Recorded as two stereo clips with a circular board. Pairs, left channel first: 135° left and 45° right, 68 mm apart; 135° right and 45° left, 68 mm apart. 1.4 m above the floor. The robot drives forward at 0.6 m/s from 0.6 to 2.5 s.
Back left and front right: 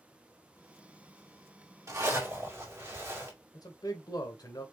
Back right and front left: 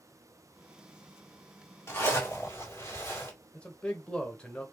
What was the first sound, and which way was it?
A zipper, 85° right.